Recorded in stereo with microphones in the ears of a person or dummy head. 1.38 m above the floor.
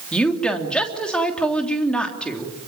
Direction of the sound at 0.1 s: 5° left (ahead or behind).